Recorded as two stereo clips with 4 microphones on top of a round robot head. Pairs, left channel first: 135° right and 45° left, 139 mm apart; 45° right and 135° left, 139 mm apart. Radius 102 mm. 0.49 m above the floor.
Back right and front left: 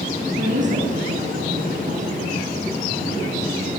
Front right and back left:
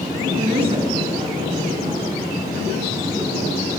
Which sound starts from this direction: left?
A woman speaking, at 0.4 s.